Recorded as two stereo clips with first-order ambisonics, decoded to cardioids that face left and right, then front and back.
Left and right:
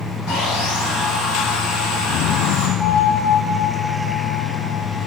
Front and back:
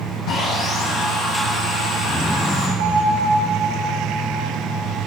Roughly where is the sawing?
Left.